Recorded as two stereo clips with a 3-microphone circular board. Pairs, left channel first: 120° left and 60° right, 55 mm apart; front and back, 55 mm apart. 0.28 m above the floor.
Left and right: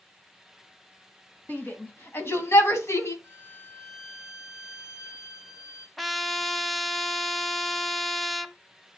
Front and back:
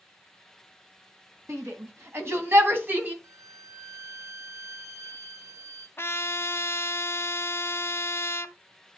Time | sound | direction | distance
1.5 | a shout | 170° left | 2.5 m
3.2 | a violin | 160° left | 1.4 m
6.0 | a trumpet | 30° left | 0.7 m